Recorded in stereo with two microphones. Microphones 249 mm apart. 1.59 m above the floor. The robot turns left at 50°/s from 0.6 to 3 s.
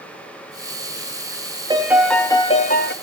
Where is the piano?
160° right, 1.1 m; by 2.9 s 135° left, 1.1 m.